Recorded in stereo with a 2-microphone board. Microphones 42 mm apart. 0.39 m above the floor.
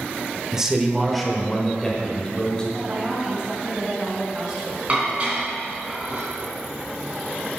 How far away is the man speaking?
About 1.1 m.